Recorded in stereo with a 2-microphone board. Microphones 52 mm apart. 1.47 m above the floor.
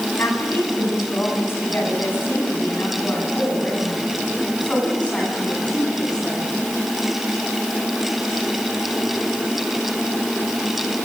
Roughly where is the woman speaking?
Left.